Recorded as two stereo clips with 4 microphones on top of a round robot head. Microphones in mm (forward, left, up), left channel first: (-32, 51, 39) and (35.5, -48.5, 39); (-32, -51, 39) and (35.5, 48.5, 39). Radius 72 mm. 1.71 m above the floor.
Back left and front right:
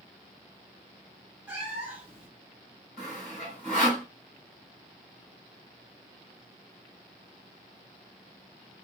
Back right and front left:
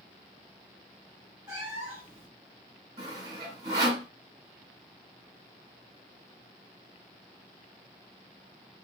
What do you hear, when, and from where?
1.5 s a cat meowing: straight ahead, 1.1 m
3.0 s sawing: 40° left, 2 m